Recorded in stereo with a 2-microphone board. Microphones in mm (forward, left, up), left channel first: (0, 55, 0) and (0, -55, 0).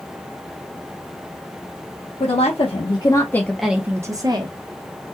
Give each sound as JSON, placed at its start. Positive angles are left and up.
{"t": 2.2, "sound": "a woman speaking", "side_deg": 65, "distance_m": 0.9}